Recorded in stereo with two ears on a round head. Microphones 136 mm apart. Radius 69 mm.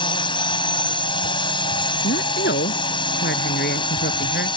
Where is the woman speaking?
65° left (ahead or behind).